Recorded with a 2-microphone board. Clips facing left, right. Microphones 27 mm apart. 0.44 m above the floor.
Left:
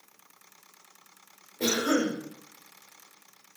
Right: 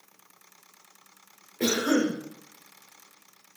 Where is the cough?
35° right (ahead or behind), 1.0 m.